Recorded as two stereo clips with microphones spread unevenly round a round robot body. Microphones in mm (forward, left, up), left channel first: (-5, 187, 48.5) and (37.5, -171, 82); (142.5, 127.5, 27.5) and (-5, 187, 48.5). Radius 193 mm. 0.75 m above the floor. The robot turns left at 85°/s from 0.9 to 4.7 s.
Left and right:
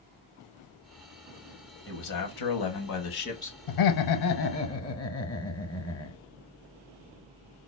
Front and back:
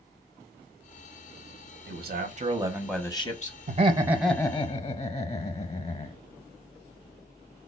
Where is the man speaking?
150° left, 1.3 m; by 3.6 s 5° left, 1.3 m.